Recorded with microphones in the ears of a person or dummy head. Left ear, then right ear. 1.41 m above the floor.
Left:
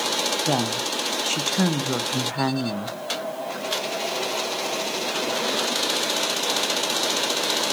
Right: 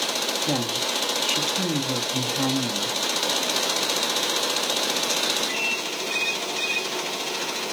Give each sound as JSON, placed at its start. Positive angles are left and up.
{"t": 0.5, "sound": "a woman speaking", "side_deg": 55, "distance_m": 0.8}